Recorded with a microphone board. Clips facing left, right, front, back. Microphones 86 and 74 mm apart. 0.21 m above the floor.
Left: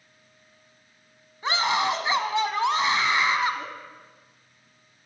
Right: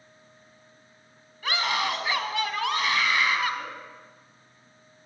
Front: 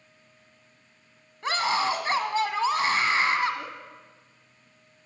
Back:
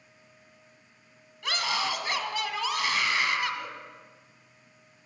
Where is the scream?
35° left, 1.2 m.